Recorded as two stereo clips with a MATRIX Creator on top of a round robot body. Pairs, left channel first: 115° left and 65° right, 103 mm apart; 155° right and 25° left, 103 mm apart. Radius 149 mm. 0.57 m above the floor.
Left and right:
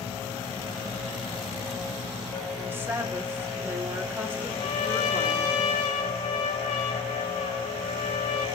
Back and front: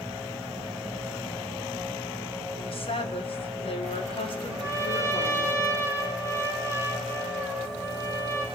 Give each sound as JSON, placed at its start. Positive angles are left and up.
{"t": 2.6, "sound": "a woman speaking", "azimuth_deg": -135, "distance_m": 1.8}
{"t": 4.5, "sound": "a trumpet", "azimuth_deg": 145, "distance_m": 3.0}